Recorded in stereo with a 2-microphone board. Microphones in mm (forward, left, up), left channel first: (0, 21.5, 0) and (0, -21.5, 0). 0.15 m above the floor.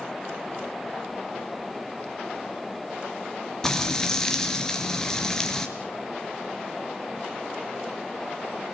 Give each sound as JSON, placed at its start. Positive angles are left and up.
{"t": 3.6, "sound": "frying", "side_deg": 15, "distance_m": 3.0}